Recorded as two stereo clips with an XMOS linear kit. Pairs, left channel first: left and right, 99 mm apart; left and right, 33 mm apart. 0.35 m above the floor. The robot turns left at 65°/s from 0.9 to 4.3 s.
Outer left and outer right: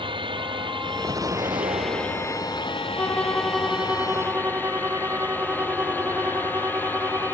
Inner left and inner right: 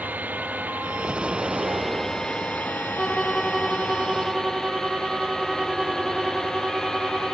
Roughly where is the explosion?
Ahead right.